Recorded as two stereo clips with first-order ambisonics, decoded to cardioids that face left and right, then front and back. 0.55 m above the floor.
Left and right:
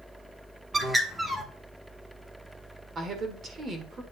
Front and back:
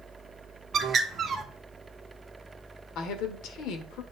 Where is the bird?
155° right, 1.0 m.